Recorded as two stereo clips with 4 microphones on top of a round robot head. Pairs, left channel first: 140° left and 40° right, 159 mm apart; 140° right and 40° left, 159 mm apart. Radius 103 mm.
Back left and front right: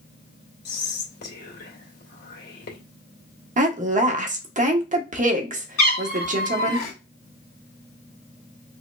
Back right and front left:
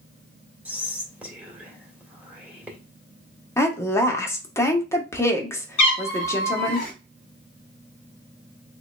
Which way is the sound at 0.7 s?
125° left.